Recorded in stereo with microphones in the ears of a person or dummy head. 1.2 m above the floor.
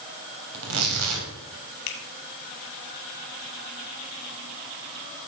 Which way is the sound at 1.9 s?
80° left.